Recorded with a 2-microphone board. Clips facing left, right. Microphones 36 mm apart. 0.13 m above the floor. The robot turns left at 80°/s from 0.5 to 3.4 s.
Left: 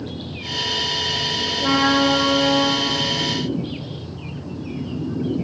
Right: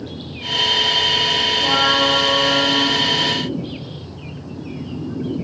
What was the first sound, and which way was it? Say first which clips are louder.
A trumpet: left 1 dB; 125° left.